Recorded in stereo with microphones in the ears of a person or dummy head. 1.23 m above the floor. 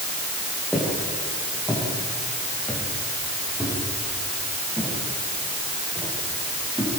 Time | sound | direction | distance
0.7 | footsteps | centre (ahead or behind) | 9.5 m